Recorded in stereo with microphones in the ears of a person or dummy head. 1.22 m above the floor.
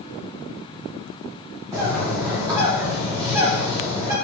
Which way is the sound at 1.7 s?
20° right (ahead or behind).